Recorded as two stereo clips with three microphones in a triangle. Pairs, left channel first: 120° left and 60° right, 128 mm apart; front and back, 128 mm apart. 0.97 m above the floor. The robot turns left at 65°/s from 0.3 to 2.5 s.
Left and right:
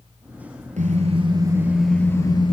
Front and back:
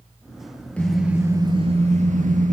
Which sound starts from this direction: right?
A car horn, at 0.8 s.